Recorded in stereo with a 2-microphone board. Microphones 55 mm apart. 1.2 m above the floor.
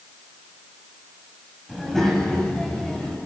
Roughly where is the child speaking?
Centre.